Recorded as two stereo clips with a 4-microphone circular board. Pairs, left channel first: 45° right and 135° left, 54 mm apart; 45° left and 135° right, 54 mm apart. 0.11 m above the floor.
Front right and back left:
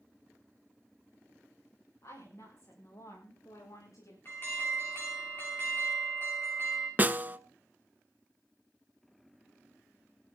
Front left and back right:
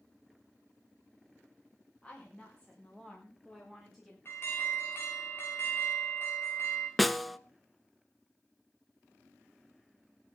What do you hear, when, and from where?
2.0 s a woman speaking: 25° right, 9.5 m; by 4.2 s 45° right, 10.5 m
4.2 s an alarm: straight ahead, 9 m
7.0 s a snare drum: 135° left, 0.6 m